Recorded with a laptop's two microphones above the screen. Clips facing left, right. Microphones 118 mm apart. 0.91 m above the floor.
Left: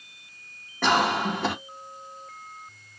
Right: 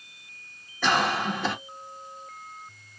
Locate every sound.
0.8 s a cough: 55° left (ahead or behind), 1.4 m